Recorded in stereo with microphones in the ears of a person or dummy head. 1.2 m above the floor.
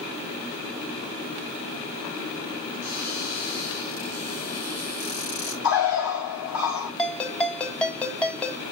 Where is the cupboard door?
85° left, 5 m.